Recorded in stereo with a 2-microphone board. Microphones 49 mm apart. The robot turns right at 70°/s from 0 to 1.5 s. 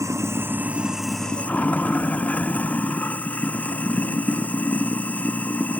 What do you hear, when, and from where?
0.0 s running water: 75° right; by 5.8 s 30° left